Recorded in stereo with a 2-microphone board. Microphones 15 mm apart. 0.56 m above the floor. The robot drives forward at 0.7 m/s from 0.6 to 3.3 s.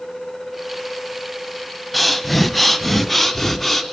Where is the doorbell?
No doorbell in this recording.